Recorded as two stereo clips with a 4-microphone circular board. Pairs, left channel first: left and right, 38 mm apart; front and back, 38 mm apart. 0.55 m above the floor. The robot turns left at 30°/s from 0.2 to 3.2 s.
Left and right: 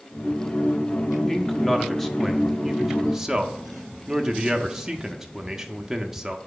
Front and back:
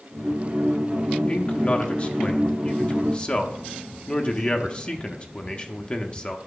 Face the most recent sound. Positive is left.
turn(degrees=-25)